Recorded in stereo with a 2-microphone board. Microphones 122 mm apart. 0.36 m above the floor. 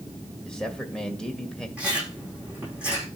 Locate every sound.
0.5 s a man speaking: 5° left (ahead or behind), 1.8 m
1.8 s chewing: 10° right (ahead or behind), 9 m